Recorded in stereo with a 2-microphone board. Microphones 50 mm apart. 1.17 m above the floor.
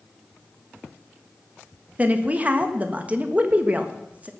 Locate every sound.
2.0 s a woman speaking: 30° right (ahead or behind), 1.4 m